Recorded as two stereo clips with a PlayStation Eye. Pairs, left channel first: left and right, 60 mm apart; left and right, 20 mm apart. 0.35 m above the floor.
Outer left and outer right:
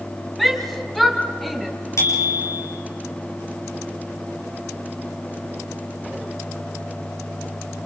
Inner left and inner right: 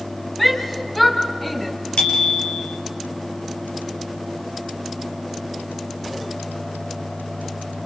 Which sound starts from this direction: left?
A bicycle bell, at 2.0 s.